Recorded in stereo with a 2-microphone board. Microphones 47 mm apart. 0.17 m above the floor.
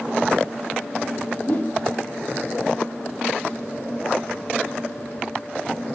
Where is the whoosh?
45° left (ahead or behind), 2.5 m.